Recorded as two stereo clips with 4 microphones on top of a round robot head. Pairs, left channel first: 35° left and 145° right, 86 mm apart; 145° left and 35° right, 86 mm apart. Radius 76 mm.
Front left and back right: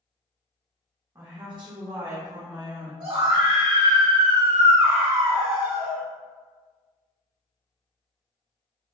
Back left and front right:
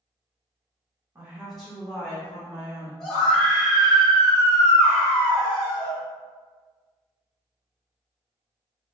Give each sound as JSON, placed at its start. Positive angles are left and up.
{"t": 1.1, "sound": "a woman speaking", "azimuth_deg": -95, "distance_m": 0.6}
{"t": 3.0, "sound": "a scream", "azimuth_deg": -125, "distance_m": 1.6}